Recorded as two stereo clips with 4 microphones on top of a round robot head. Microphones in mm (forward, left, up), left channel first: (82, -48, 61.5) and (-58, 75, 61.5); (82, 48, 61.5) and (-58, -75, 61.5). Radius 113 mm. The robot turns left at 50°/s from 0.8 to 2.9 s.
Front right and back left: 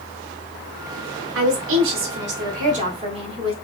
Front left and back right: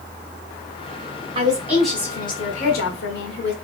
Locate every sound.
1.4 s a woman speaking: 155° left, 1.6 m; by 3.5 s 80° left, 1.6 m